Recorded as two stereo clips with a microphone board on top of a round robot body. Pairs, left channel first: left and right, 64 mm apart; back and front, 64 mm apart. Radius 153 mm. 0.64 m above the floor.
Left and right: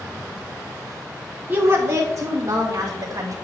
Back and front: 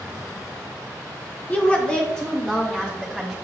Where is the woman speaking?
130° right, 1.1 m; by 3.4 s 95° right, 2.5 m.